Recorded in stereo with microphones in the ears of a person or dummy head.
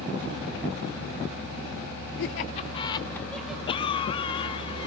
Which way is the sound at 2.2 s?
55° left (ahead or behind).